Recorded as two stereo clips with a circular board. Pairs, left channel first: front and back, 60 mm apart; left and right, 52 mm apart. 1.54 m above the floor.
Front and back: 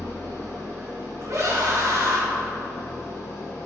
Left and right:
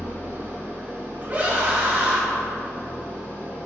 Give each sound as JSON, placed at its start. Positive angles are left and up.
{"t": 0.0, "sound": "an engine running", "azimuth_deg": -45, "distance_m": 2.0}
{"t": 1.2, "sound": "a scream", "azimuth_deg": -140, "distance_m": 2.0}